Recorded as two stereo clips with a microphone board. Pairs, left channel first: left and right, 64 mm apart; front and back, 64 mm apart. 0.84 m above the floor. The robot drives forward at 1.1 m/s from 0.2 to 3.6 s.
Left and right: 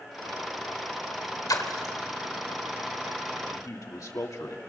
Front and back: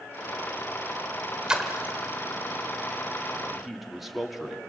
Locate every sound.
1.5 s a splash: 100° left, 1.8 m; by 1.9 s 115° left, 2.0 m
3.5 s a man speaking: 90° left, 2 m